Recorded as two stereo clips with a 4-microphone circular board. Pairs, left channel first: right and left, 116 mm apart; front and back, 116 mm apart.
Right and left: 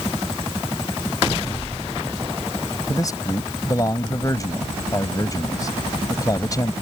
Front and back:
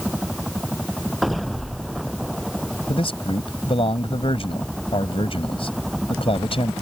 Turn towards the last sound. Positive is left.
turn(degrees=-35)